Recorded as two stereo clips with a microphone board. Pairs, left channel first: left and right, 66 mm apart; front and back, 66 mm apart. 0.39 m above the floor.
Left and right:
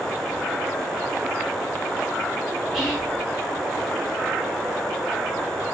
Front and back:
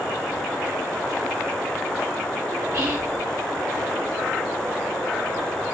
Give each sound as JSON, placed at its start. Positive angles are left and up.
{"t": 2.7, "sound": "whispering", "azimuth_deg": -170, "distance_m": 2.0}